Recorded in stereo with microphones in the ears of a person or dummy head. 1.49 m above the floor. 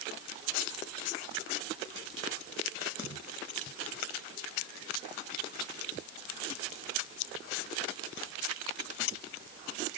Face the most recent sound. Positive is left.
No sound to turn to.